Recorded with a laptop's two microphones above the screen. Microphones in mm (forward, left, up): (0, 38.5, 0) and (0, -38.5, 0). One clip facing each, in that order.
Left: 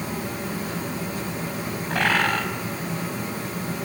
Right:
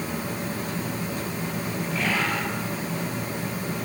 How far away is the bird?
About 5.5 m.